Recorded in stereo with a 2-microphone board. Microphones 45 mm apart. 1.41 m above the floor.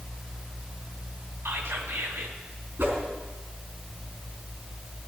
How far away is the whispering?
About 2.5 m.